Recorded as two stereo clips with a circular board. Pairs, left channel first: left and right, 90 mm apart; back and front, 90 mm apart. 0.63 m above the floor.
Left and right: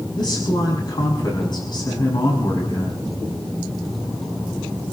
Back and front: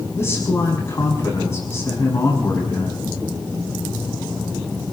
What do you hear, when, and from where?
0.2 s a man speaking: 120° left, 6 m